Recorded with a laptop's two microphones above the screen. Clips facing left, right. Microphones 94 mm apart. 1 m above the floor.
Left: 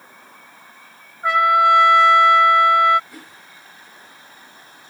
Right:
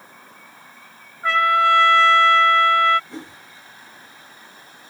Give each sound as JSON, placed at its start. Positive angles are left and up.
{"t": 1.2, "sound": "a trumpet", "side_deg": 15}
{"t": 3.1, "sound": "a whoosh", "side_deg": -25}